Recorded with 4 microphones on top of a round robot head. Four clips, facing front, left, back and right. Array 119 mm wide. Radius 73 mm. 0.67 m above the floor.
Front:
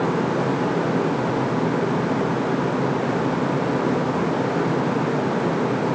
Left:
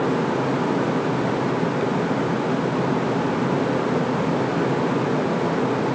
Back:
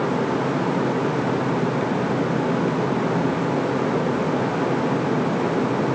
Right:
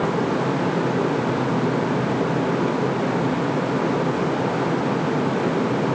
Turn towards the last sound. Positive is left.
No sound to turn to.